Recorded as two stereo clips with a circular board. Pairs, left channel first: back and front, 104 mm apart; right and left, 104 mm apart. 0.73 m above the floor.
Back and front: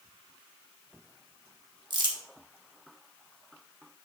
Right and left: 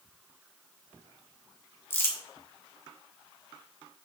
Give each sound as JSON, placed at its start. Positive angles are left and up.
{"t": 1.9, "sound": "crumpling", "azimuth_deg": -30, "distance_m": 1.3}